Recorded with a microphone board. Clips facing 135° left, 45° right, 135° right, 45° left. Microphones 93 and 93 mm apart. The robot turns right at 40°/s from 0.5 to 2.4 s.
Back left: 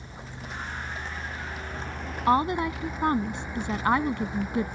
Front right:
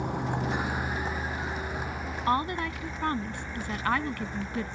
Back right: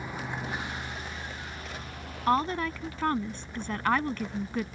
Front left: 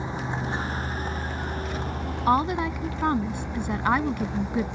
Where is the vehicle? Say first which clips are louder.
Front right 12 dB, front left 5 dB; 20° right; by 4.8 s 55° left.